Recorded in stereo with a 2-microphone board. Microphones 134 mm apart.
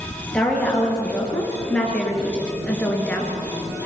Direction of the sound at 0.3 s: 5° left (ahead or behind).